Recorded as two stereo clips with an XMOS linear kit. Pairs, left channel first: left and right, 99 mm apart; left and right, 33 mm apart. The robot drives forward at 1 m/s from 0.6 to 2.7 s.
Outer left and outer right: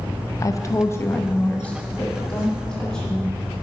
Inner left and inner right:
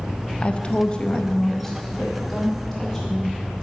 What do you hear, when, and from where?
0.4 s a woman speaking: 35° left (ahead or behind), 0.5 m; by 3.3 s 5° left (ahead or behind), 2 m